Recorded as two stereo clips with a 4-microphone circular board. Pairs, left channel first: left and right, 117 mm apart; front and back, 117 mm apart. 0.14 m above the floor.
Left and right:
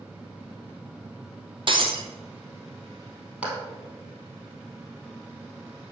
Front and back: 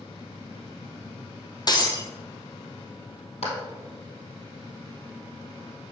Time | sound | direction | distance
1.7 | breaking glass | 50° right | 1.5 m
3.4 | a clap | 10° right | 3 m